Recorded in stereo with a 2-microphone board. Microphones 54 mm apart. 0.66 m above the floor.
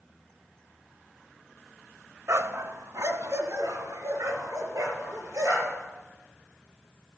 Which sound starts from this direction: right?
A dog barking, at 2.3 s.